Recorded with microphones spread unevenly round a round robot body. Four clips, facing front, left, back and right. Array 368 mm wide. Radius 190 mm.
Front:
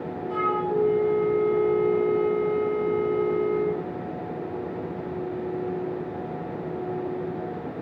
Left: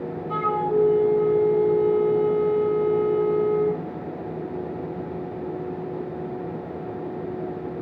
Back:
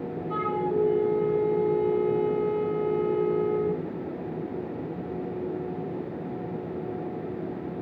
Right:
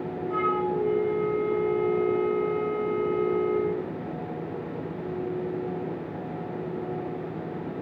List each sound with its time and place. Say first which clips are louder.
0.3 s a flute: left 4 dB, front 2 dB; 75° left, 6 m